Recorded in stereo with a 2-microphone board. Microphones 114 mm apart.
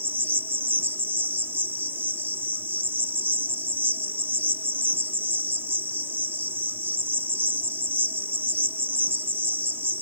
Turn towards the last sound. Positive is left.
turn(degrees=-15)  # may be behind; listen again after turning